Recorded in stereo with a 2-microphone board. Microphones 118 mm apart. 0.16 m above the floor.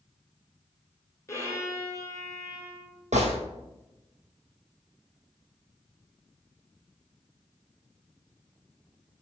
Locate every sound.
1.3 s a violin: 25° left (ahead or behind), 1.6 m
3.1 s a gunshot: 75° right (ahead or behind), 1.5 m